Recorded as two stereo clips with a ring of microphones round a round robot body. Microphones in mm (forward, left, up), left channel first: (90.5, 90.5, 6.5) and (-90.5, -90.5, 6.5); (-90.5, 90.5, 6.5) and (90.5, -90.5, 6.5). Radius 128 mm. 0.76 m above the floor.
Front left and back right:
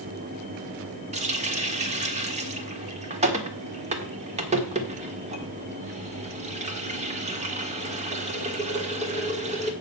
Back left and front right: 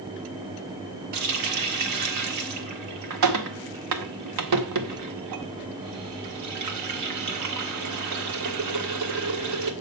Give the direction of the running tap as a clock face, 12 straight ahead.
2 o'clock.